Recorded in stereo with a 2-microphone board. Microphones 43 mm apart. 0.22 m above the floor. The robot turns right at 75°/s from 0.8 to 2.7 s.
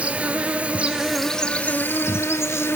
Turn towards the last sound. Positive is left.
turn(degrees=115)